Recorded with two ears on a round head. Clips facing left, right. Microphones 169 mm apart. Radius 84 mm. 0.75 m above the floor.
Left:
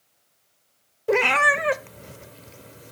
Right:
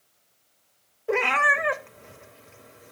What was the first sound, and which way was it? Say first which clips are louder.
A cat meowing: left 4 dB; 45° left (ahead or behind).